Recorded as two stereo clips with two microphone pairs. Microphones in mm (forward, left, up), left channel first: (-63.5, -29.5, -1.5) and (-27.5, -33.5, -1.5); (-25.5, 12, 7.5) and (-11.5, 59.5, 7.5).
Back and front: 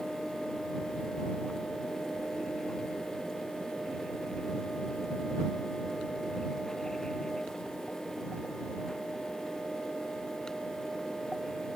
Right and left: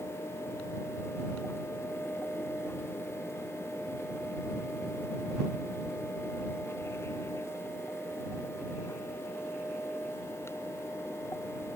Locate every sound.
Only background noise.